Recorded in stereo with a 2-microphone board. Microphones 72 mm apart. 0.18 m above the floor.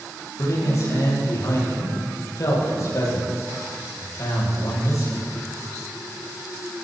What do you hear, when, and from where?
0.4 s a man speaking: 50° left (ahead or behind), 6.5 m